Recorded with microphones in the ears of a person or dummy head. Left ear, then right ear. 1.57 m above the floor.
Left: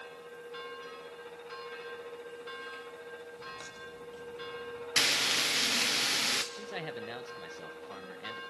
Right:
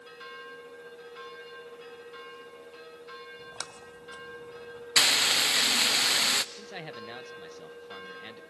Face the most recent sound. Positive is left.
turn(degrees=0)  # may be behind; listen again after turning